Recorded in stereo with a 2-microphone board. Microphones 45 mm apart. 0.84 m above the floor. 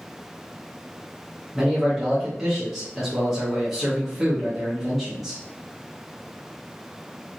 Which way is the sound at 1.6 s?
5° right (ahead or behind).